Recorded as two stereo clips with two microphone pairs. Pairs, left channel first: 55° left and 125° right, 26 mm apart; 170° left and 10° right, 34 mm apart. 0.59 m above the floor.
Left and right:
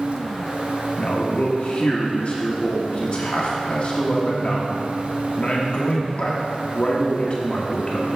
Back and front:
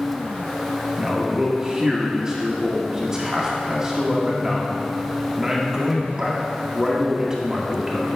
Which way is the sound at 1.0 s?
55° left.